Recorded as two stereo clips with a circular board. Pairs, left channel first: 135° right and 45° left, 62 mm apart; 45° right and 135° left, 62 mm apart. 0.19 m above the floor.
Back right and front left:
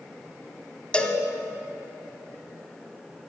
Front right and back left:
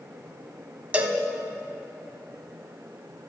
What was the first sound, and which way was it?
A cowbell, 175° left.